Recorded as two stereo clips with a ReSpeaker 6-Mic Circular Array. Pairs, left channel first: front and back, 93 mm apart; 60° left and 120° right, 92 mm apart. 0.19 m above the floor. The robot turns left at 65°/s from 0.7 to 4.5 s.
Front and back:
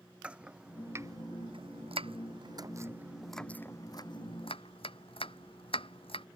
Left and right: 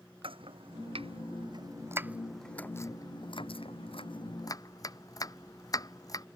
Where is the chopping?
100° right; by 6.3 s 10° left.